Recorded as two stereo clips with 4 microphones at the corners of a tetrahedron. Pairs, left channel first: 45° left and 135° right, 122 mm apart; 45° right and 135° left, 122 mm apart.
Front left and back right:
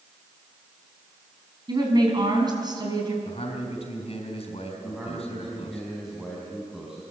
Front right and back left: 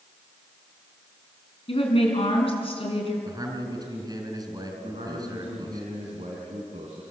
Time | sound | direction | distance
1.7 | a woman speaking | 80° right | 5 m
3.2 | a man speaking | 80° left | 4 m
4.8 | a man speaking | 140° left | 4 m